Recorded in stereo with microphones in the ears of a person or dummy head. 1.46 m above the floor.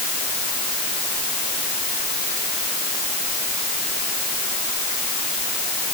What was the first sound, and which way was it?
Only background noise.